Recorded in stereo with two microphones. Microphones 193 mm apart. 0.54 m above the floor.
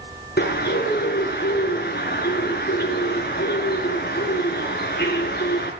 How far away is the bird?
About 5 m.